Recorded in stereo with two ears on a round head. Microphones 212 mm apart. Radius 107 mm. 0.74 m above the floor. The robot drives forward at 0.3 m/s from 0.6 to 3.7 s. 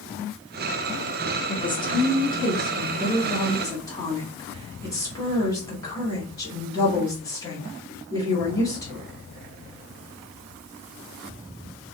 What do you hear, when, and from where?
1.5 s a woman speaking: 20° left (ahead or behind), 1.2 m; by 9.1 s 15° left (ahead or behind), 1.7 m